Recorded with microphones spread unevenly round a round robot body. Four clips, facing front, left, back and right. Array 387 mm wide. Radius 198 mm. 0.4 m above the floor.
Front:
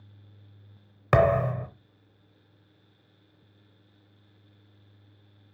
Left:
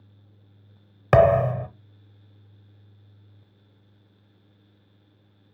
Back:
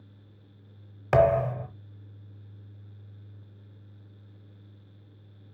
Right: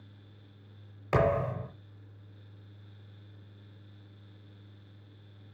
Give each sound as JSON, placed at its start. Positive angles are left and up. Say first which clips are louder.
{"t": 1.1, "sound": "a thud", "louder": "left 11 dB, even", "azimuth_deg": 75, "distance_m": 0.9}